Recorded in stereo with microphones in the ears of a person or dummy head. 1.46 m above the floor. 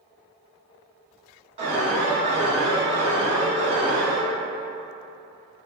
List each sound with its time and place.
1.6 s an alarm: 35° right (ahead or behind), 1.5 m